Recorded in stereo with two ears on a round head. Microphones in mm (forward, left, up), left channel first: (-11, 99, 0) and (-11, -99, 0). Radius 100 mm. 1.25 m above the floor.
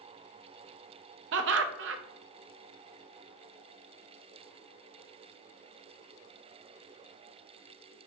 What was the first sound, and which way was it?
Laughter, 55° right (ahead or behind).